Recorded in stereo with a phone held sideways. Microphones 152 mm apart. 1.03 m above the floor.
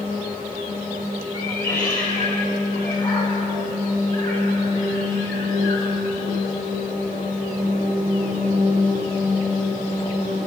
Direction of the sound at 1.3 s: 20° left (ahead or behind).